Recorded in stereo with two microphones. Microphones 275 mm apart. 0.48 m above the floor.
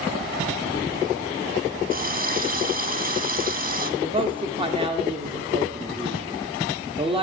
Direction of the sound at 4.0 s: 20° right (ahead or behind).